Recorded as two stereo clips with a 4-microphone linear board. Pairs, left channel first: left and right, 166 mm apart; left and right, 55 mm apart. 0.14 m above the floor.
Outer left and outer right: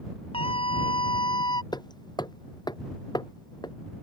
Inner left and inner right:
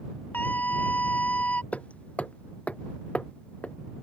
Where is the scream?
35° left (ahead or behind); by 1.6 s 25° left (ahead or behind).